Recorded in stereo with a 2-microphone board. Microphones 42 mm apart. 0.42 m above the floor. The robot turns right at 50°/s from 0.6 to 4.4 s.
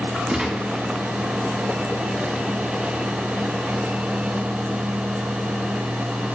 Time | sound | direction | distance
0.3 | a gunshot | 20° right (ahead or behind) | 3 m